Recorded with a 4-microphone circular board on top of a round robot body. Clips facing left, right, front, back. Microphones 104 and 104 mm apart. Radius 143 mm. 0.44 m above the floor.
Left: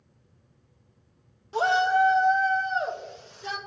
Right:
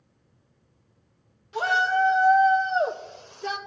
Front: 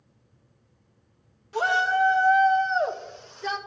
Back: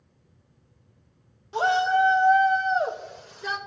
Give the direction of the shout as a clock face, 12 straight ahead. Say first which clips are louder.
Left 2 dB, back 2 dB; 8 o'clock.